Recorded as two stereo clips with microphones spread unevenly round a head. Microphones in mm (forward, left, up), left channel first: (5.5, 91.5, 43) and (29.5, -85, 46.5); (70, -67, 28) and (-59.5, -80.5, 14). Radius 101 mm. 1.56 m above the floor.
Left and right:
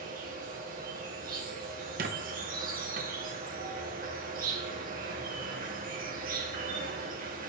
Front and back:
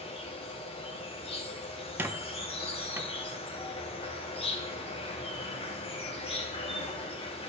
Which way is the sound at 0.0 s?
40° right.